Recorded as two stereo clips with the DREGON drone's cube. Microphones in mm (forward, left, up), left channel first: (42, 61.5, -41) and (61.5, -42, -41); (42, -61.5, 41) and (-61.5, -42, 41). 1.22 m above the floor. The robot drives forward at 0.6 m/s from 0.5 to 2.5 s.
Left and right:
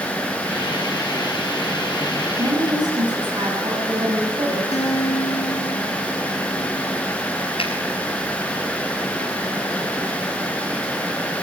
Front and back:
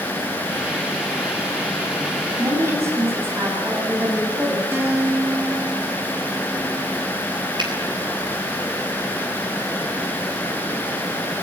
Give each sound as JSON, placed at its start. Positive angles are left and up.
{"t": 2.4, "sound": "a woman speaking", "azimuth_deg": -125, "distance_m": 8.5}
{"t": 4.7, "sound": "a guitar", "azimuth_deg": 100, "distance_m": 8.0}
{"t": 7.6, "sound": "a finger snap", "azimuth_deg": 130, "distance_m": 5.5}